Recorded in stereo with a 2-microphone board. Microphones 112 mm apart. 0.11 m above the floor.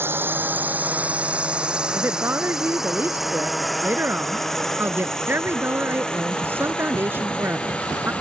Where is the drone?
20° right (ahead or behind); by 8.2 s 10° left (ahead or behind).